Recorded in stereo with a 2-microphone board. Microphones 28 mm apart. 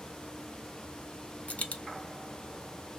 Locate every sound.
1.5 s a dropped coin: 55° left (ahead or behind), 0.6 m